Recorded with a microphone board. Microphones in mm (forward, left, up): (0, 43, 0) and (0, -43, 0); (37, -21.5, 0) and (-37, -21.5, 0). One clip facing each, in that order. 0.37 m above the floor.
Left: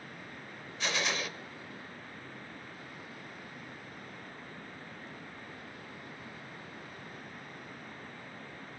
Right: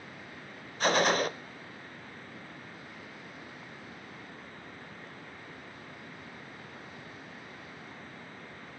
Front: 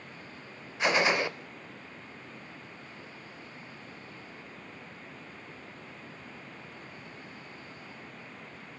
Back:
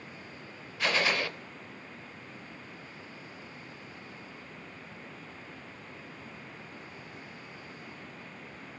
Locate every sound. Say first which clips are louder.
0.8 s a gunshot: right 9 dB, front 3 dB; 65° right, 0.7 m